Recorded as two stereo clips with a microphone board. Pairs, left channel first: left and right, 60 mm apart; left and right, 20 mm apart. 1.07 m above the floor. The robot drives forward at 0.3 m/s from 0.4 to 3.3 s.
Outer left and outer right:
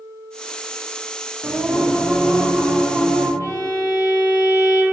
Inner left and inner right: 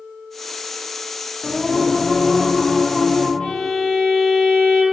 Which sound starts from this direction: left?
A violin, at 3.4 s.